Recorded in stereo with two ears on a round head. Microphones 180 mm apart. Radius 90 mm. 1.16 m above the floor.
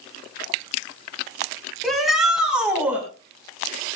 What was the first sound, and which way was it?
A shout, centre (ahead or behind).